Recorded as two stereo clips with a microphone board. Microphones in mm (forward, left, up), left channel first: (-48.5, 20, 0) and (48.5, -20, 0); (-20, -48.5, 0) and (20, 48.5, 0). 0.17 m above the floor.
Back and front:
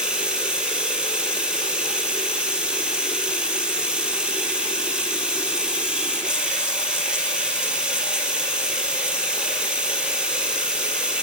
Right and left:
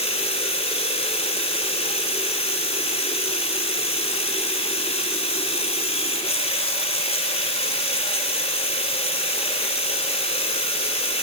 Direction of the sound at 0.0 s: 105° right.